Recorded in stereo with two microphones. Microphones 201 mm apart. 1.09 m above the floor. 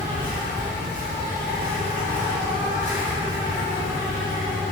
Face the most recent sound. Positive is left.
turn(degrees=-40)  # may be behind; listen again after turning